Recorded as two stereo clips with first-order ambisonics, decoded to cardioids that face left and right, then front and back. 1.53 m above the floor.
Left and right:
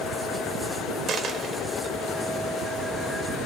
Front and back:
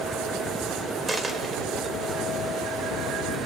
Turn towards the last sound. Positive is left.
turn(degrees=-115)